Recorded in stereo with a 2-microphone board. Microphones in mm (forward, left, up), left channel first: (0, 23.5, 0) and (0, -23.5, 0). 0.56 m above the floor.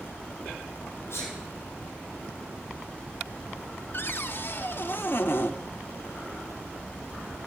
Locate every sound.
1.1 s a sneeze: 60° left (ahead or behind), 2.5 m
3.9 s a cupboard door: 55° left (ahead or behind), 0.7 m